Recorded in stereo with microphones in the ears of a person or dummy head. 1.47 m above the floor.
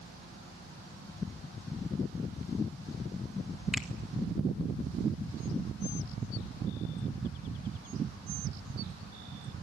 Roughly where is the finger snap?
Centre.